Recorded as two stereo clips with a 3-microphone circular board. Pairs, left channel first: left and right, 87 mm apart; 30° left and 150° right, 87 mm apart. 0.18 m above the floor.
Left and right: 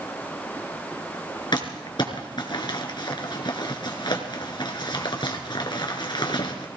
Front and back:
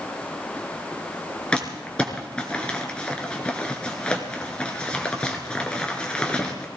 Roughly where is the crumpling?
Left.